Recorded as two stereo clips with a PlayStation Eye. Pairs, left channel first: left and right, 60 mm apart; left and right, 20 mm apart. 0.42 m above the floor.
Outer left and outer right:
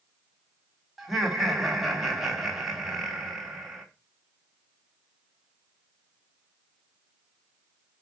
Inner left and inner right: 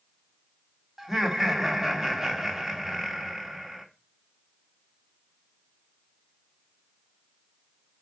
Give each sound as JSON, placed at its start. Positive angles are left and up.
{"t": 1.0, "sound": "laughter", "side_deg": -5, "distance_m": 3.5}